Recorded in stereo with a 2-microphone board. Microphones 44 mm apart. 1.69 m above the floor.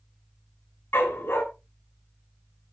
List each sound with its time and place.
0.9 s a dog barking: 60° left (ahead or behind), 5.5 m